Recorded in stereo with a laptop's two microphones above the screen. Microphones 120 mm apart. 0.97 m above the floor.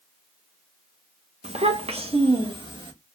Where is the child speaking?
60° right (ahead or behind), 0.6 m; by 2.9 s 40° right (ahead or behind), 1.2 m.